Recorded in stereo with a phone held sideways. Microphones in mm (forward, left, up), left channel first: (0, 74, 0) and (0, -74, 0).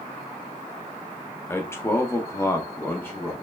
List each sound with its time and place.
1.5 s a man speaking: 15° left (ahead or behind), 0.8 m; by 3.3 s 10° left (ahead or behind), 0.9 m